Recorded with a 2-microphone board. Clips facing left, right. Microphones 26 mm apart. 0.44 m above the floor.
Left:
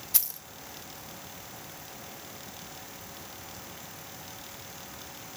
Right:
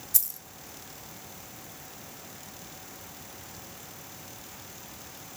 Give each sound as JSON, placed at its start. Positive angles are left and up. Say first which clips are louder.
{"t": 0.1, "sound": "keys jangling", "louder": "left 1 dB", "side_deg": 40, "distance_m": 0.7}